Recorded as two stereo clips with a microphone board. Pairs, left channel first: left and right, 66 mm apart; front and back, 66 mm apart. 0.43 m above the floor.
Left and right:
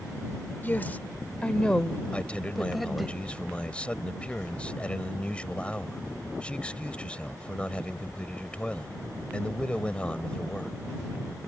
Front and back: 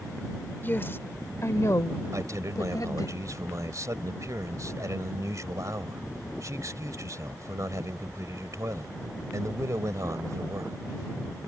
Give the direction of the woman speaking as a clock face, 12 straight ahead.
11 o'clock.